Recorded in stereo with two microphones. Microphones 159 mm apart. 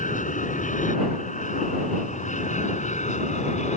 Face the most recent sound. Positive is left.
turn(degrees=45)  # may be behind; listen again after turning